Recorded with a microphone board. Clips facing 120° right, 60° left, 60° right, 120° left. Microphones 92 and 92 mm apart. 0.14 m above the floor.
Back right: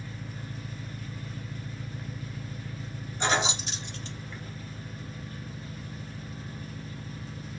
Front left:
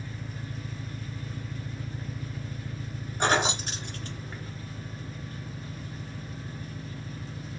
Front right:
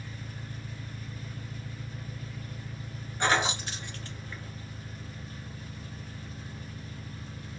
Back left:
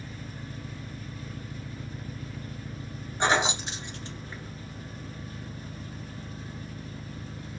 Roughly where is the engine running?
Behind.